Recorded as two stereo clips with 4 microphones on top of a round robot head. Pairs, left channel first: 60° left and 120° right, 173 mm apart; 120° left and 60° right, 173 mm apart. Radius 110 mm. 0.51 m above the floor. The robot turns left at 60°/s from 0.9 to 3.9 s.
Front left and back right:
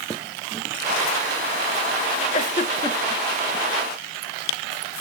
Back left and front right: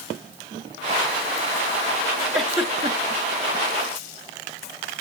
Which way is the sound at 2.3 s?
35° left.